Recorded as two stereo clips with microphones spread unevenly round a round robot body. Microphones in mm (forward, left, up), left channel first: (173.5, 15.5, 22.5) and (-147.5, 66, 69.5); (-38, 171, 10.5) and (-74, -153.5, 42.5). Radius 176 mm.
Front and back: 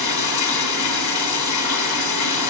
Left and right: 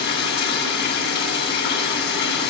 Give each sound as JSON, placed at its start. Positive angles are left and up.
{"t": 0.0, "sound": "running water", "azimuth_deg": 20, "distance_m": 4.0}